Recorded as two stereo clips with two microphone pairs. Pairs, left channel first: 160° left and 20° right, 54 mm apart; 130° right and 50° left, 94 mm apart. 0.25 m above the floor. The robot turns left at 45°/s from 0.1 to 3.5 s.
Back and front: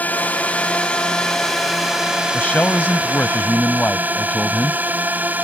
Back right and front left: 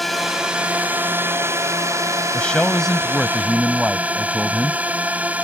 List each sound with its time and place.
0.0 s a drone: 145° left; by 5.5 s 10° right
2.3 s a man speaking: 175° left; by 4.8 s 120° left